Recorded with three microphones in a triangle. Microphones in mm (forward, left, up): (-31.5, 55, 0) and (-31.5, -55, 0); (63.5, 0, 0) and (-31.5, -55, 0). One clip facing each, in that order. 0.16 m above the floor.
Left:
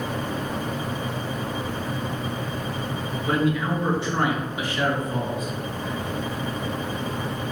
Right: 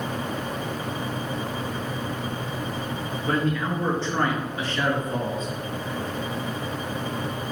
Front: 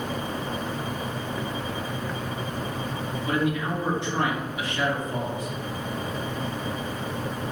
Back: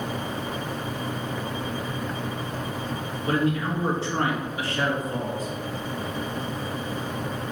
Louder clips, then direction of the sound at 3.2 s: Left 2 dB, back 2 dB; 165° left.